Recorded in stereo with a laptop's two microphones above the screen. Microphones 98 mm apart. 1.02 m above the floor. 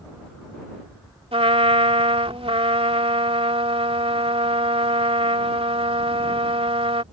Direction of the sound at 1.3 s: 80° right.